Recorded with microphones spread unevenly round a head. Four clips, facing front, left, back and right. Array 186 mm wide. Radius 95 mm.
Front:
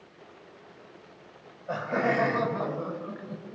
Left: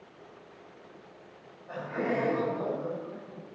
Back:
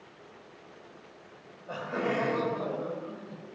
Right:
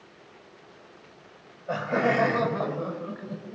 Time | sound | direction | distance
1.7 | laughter | 75° right | 6.5 m